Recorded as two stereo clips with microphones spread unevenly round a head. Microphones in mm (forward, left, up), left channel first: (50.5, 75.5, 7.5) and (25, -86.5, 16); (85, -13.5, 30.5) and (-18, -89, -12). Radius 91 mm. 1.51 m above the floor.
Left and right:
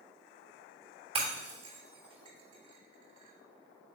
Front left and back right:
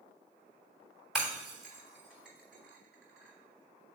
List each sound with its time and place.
1.1 s breaking glass: 50° right, 3 m